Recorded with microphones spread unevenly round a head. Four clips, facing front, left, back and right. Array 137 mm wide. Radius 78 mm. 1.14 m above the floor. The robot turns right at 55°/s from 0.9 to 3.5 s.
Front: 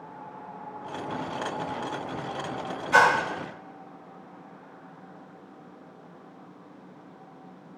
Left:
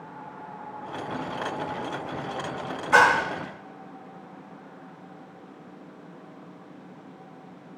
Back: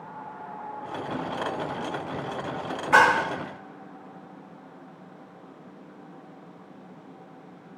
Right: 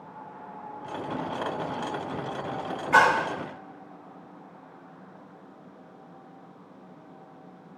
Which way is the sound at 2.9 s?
145° left.